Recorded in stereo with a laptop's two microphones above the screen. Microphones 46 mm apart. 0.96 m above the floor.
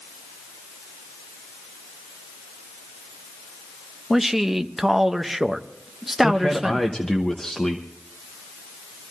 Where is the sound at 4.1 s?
5° right (ahead or behind), 0.6 m.